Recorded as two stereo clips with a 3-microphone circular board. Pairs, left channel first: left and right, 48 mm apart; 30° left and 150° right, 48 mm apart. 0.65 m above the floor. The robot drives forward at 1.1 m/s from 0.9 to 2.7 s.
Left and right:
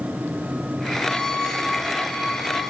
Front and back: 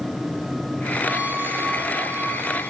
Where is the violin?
155° left, 0.7 m; by 2.7 s 175° left, 2.5 m.